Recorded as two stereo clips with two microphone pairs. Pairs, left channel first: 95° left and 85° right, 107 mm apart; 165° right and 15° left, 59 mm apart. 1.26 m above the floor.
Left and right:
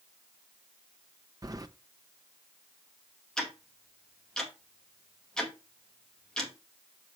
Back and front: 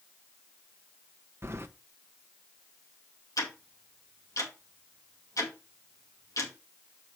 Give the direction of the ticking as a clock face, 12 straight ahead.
6 o'clock.